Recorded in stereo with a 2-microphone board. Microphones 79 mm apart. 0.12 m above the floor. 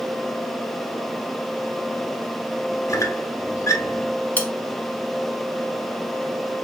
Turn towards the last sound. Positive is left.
turn(degrees=20)  # may be behind; listen again after turning